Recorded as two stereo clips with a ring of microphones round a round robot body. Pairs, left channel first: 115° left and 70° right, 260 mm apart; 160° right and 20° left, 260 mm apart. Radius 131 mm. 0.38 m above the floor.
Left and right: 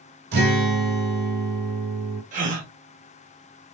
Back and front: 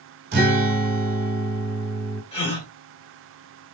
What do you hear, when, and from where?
0.3 s a guitar: 20° right, 0.9 m
2.3 s a gasp: 105° right, 1.0 m